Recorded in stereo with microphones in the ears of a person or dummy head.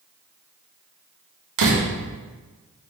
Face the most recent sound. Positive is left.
turn(degrees=-80)